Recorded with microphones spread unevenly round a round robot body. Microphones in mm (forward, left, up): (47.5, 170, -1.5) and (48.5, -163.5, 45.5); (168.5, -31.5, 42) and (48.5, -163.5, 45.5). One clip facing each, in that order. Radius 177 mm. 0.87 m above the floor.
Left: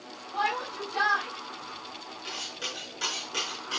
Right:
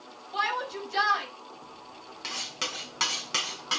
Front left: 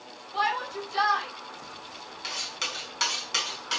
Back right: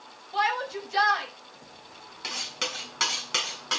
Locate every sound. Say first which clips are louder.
0.3 s a shout: even, back right 2 dB; 115° right, 6 m
2.2 s cutlery clinking: right 2 dB, back right 5 dB; 105° right, 5.5 m